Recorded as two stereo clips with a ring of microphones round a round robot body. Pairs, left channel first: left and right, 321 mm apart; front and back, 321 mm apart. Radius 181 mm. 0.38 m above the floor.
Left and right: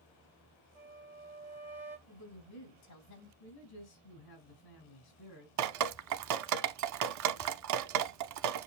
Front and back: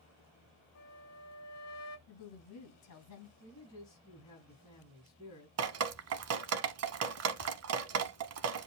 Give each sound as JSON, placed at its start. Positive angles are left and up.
{"t": 0.8, "sound": "a flute", "azimuth_deg": -10, "distance_m": 1.0}
{"t": 2.1, "sound": "a woman speaking", "azimuth_deg": 45, "distance_m": 3.0}
{"t": 3.4, "sound": "a man speaking", "azimuth_deg": 80, "distance_m": 4.0}
{"t": 5.6, "sound": "dripping", "azimuth_deg": -130, "distance_m": 0.8}